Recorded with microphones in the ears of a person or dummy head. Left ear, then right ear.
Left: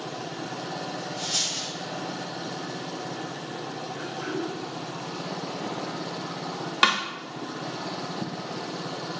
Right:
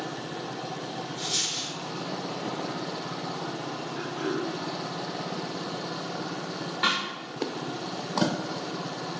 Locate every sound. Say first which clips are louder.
1.2 s a dropped coin: left 1 dB; 15° right (ahead or behind), 1.7 m
4.0 s throat clearing: right 2 dB; 80° right, 0.9 m
6.8 s a snare drum: left 4 dB; 55° left (ahead or behind), 0.5 m